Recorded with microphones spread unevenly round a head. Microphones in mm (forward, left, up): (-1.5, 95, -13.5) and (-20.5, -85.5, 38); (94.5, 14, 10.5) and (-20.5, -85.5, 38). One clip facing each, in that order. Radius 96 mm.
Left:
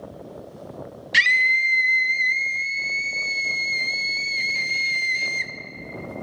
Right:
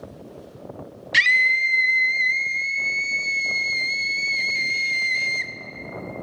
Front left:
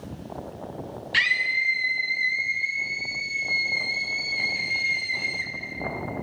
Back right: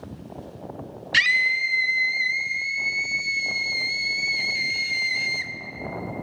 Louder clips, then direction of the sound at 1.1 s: Right 2 dB, back right 2 dB; 175° right.